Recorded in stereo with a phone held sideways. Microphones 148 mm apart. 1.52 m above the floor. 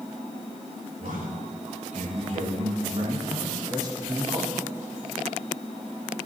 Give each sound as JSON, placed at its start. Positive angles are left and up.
{"t": 1.0, "sound": "a man speaking", "side_deg": -65, "distance_m": 3.0}